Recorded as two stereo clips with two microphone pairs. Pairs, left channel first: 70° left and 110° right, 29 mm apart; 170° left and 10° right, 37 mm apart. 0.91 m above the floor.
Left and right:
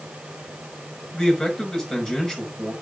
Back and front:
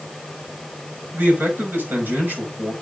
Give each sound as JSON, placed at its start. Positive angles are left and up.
{"t": 1.1, "sound": "a man speaking", "azimuth_deg": 5, "distance_m": 5.0}